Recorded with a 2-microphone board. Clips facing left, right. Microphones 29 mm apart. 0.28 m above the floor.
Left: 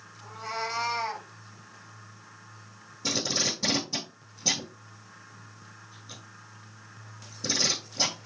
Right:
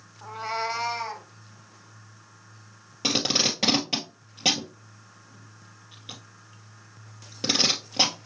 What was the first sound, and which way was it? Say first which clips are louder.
A cat meowing: right 4 dB; 45° right (ahead or behind).